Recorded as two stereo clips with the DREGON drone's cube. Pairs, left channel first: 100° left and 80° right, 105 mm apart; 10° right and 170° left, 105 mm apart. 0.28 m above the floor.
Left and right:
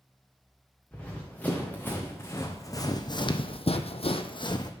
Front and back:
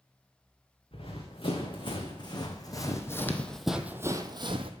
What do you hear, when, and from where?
0.9 s running footsteps: 25° left, 2 m; by 4.7 s 145° left, 0.8 m